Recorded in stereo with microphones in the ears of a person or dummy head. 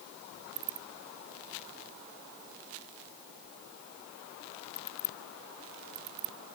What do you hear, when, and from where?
Only background noise.